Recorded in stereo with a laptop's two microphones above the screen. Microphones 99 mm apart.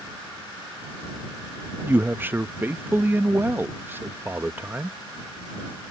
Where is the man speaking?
20° right (ahead or behind).